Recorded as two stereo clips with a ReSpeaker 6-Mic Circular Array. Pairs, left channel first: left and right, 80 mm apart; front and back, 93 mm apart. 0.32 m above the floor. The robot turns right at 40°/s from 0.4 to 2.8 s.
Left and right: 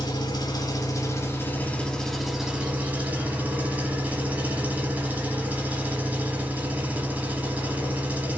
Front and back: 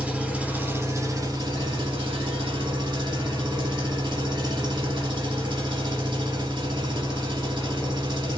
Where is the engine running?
105° left, 1.0 m; by 8.4 s 160° right, 1.0 m.